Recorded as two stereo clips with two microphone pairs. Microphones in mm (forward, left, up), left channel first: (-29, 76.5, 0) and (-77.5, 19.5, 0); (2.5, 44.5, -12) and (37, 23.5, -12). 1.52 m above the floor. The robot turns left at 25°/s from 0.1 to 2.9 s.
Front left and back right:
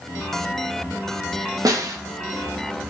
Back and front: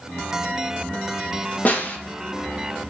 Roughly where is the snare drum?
Behind.